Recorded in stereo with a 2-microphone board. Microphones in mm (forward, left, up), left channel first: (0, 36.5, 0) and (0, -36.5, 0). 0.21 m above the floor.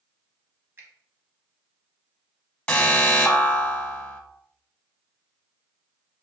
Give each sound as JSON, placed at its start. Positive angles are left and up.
{"t": 0.8, "sound": "a finger snap", "side_deg": -30, "distance_m": 1.1}
{"t": 2.7, "sound": "an alarm", "side_deg": 15, "distance_m": 0.9}